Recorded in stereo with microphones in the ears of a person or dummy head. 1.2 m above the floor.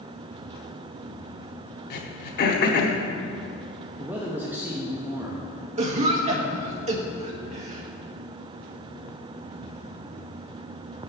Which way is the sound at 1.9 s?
55° left (ahead or behind).